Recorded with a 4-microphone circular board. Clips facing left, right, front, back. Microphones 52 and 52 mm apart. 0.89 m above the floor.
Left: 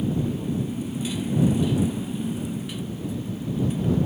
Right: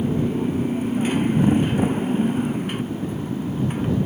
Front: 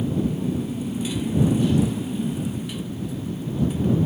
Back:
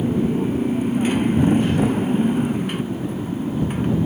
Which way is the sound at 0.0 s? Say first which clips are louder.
Right 4 dB, back 4 dB; 135° right.